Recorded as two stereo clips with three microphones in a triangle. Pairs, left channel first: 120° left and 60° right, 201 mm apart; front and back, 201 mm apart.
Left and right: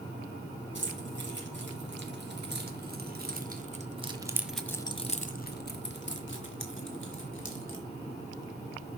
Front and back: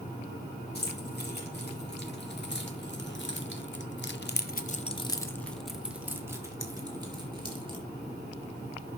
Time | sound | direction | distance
0.8 | keys jangling | 35° right | 4.5 m